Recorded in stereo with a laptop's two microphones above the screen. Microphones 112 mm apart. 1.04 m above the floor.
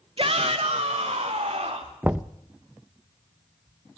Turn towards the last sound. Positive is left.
turn(degrees=-15)  # may be behind; listen again after turning